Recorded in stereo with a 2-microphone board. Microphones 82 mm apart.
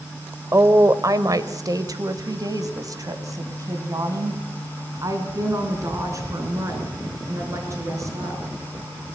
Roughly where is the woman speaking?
Right.